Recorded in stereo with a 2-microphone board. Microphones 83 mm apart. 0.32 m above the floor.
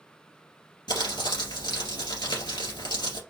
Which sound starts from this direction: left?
Crumpling, at 0.9 s.